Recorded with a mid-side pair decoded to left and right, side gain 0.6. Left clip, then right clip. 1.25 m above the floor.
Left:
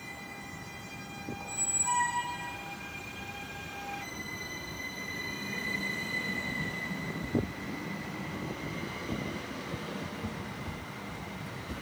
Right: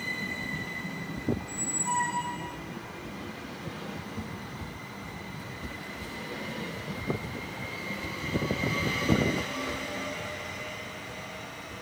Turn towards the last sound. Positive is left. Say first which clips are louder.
# even
turn(degrees=5)